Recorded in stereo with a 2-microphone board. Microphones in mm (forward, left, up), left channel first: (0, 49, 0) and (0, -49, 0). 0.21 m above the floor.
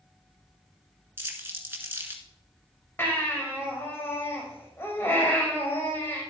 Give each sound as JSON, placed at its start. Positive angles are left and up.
{"t": 1.2, "sound": "crumpling", "side_deg": -25, "distance_m": 1.9}
{"t": 3.0, "sound": "a baby crying", "side_deg": 25, "distance_m": 4.0}